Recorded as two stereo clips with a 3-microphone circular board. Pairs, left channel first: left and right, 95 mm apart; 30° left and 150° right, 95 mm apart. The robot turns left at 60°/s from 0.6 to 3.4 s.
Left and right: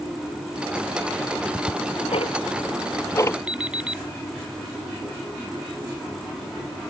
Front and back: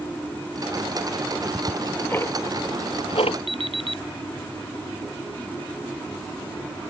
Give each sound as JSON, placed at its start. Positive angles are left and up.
{"t": 1.2, "sound": "ticking", "azimuth_deg": 155}
{"t": 3.5, "sound": "an alarm clock", "azimuth_deg": -170}